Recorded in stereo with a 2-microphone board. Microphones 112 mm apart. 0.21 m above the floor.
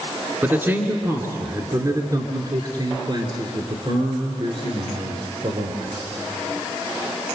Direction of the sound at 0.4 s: 20° right (ahead or behind).